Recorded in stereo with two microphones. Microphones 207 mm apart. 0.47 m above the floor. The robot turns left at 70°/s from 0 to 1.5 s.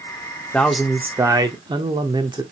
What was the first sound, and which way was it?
A man speaking, 5° left (ahead or behind).